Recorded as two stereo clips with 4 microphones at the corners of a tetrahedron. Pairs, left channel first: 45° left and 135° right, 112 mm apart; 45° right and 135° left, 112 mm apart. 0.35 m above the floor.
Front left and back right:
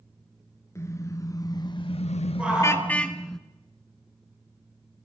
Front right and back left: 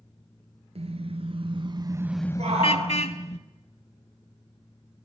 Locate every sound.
0.8 s a car horn: 110° left, 2 m; by 3.4 s 40° right, 1.6 m
2.4 s a shout: 145° left, 5.5 m